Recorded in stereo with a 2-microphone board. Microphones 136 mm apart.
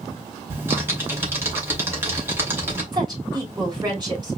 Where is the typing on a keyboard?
15° right (ahead or behind), 2.5 m.